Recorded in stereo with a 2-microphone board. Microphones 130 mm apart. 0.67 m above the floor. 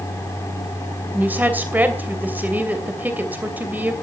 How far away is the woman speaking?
About 2.5 m.